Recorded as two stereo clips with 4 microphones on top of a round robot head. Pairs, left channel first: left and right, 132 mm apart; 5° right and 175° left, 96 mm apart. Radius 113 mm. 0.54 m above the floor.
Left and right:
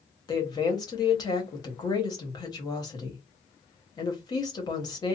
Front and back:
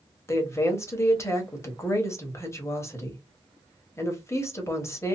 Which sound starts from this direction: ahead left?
A woman speaking, at 0.3 s.